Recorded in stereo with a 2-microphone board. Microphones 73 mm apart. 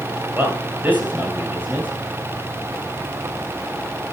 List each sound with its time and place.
0.3 s a man speaking: 25° right (ahead or behind), 8 m